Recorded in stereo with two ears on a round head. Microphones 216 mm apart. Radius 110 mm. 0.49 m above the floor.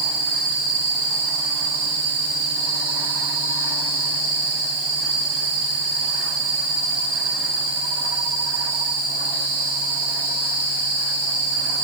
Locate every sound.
Only background noise.